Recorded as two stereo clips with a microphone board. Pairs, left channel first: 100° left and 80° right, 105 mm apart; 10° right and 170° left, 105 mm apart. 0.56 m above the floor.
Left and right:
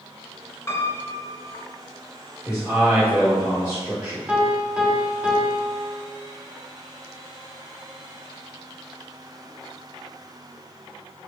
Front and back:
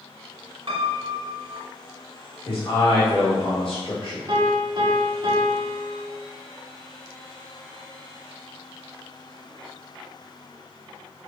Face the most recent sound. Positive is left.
turn(degrees=-155)